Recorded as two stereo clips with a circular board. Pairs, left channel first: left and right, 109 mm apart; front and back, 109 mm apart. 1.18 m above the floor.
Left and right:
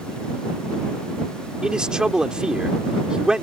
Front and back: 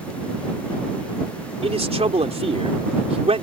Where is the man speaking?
175° right.